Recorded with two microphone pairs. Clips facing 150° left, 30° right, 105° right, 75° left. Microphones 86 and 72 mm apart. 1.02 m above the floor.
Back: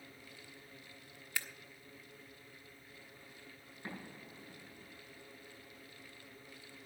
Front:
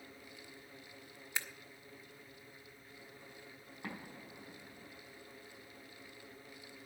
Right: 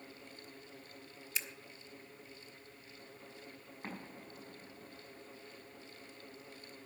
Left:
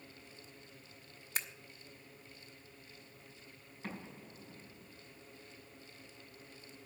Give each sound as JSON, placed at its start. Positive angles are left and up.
{"t": 1.4, "sound": "scissors", "azimuth_deg": 40, "distance_m": 1.0}
{"t": 3.8, "sound": "an explosion", "azimuth_deg": -45, "distance_m": 6.0}